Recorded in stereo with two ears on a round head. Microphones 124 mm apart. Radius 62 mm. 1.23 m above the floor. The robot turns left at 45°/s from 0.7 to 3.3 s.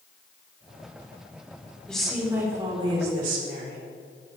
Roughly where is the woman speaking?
Ahead.